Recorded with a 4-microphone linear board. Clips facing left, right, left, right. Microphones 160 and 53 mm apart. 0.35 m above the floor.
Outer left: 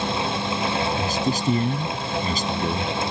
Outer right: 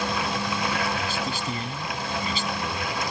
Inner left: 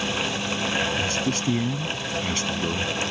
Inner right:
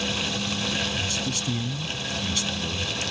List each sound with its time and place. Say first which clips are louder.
1.0 s a man speaking: outer left 6 dB, inner left 4 dB; 45° left (ahead or behind)